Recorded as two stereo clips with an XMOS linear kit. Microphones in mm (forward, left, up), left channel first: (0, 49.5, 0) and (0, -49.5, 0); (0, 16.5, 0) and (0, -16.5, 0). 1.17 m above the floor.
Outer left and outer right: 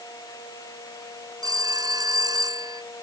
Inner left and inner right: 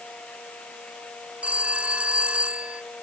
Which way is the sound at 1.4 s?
40° right (ahead or behind).